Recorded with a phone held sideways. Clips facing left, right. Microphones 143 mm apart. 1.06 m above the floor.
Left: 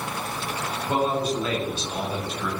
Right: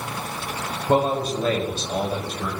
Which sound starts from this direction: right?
A man speaking, at 0.9 s.